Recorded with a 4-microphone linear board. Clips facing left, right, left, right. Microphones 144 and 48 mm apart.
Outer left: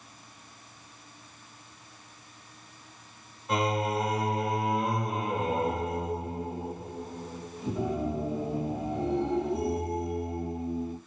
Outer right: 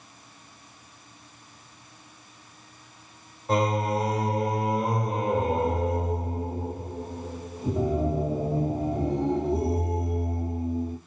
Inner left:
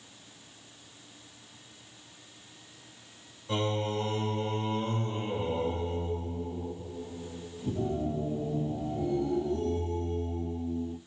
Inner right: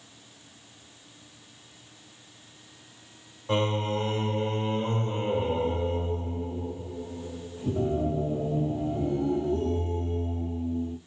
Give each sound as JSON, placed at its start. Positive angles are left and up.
{"t": 3.5, "sound": "singing", "side_deg": -35, "distance_m": 1.0}